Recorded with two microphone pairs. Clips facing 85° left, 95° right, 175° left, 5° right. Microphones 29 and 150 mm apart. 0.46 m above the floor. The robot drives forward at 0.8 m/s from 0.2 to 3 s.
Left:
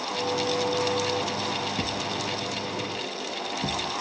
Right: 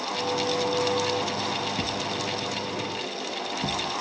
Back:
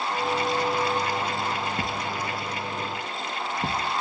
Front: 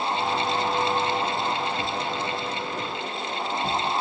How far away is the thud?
About 1.4 m.